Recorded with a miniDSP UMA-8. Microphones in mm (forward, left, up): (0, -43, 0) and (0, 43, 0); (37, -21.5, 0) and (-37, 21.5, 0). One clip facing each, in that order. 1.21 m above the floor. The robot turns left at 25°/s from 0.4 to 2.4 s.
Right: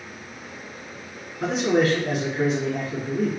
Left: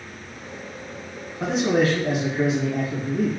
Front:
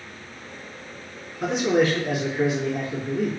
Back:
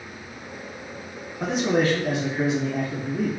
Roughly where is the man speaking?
Left.